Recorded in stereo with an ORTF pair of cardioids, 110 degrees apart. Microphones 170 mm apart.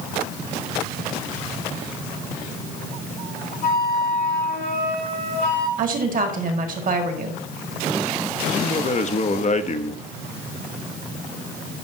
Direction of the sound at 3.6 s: 65° left.